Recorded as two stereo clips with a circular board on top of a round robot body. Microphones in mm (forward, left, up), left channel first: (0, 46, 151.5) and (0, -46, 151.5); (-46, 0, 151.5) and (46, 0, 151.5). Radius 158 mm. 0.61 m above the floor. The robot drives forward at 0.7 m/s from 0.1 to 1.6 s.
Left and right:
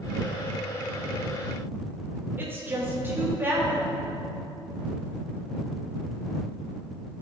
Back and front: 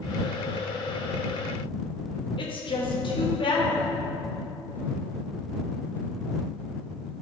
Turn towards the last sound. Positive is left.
turn(degrees=-160)